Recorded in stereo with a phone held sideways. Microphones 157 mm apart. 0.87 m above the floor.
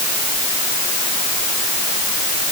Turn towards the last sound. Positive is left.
No sound to turn to.